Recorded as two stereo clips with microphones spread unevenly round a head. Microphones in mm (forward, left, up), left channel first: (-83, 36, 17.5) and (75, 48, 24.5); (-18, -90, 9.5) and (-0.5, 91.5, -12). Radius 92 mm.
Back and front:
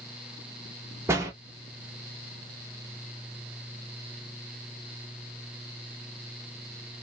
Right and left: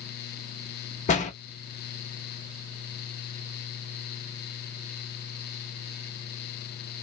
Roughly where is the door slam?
Ahead right.